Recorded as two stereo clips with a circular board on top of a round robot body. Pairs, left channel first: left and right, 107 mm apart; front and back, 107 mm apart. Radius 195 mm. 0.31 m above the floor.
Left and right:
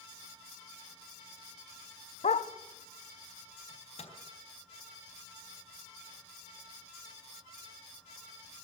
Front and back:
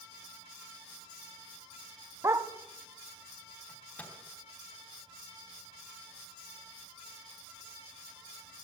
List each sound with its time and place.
2.2 s a dog barking: 115° left, 0.8 m
3.7 s a microwave: 75° left, 4 m